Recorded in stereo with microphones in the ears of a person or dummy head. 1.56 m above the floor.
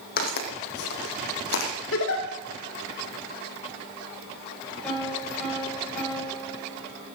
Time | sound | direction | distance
0.2 | footsteps | 60° left (ahead or behind) | 3.5 m
1.9 | a giggle | 75° left (ahead or behind) | 2.5 m
4.8 | a piano | 5° left (ahead or behind) | 7 m